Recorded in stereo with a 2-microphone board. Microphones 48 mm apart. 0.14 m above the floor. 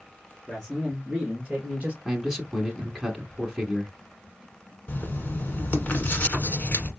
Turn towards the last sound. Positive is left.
turn(degrees=35)  # may be behind; listen again after turning